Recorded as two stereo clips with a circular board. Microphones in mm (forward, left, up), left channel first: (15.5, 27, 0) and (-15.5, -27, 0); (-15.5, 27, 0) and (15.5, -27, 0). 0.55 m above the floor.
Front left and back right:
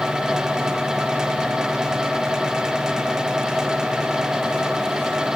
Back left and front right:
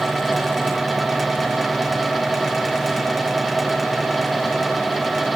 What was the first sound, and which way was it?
Only background noise.